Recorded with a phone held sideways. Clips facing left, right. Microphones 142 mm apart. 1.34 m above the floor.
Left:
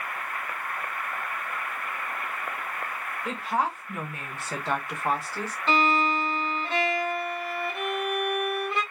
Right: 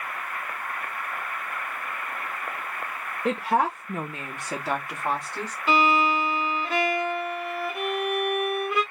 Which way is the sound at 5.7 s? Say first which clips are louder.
Right 2 dB; 5° right (ahead or behind).